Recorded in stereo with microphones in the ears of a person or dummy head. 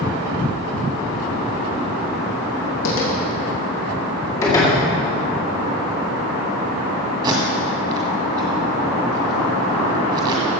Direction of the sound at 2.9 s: 65° left (ahead or behind).